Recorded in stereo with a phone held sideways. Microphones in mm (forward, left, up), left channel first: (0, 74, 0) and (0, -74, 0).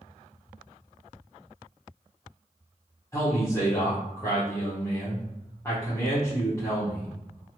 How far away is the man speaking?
About 0.9 m.